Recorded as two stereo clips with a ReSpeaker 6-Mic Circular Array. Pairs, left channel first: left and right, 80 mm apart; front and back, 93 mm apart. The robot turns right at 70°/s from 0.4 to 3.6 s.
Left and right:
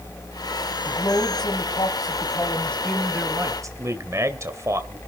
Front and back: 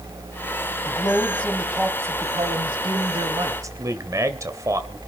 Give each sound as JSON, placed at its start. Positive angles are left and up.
{"t": 0.8, "sound": "a man speaking", "azimuth_deg": 35, "distance_m": 2.5}
{"t": 3.8, "sound": "a man speaking", "azimuth_deg": -135, "distance_m": 2.0}